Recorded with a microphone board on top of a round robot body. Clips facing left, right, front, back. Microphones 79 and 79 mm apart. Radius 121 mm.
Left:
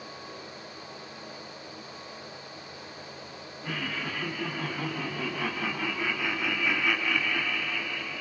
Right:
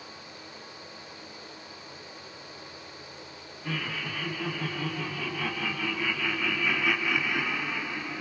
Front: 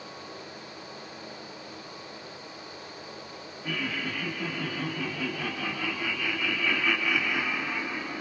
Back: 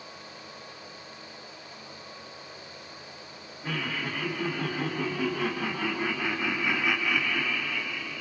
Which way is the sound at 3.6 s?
155° left.